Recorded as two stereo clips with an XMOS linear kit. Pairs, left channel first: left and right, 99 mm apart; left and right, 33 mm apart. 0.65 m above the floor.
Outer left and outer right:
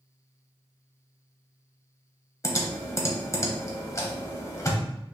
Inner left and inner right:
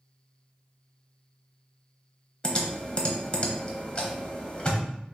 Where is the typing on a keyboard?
30° left (ahead or behind), 0.9 m.